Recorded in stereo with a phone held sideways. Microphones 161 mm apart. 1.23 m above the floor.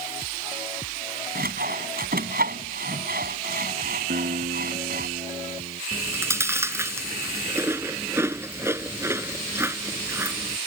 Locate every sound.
1.4 s sawing: 70° right (ahead or behind)
4.1 s a guitar: 85° right
5.9 s chewing: 15° right (ahead or behind)